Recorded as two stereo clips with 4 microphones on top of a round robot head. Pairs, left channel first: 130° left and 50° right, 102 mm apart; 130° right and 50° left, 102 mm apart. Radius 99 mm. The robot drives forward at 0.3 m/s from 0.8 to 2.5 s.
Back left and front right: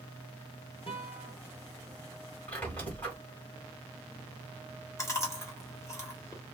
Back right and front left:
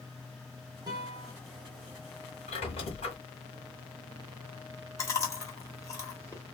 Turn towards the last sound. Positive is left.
turn(degrees=180)